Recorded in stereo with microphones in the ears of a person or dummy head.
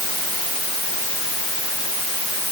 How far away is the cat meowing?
No cat meowing in this recording.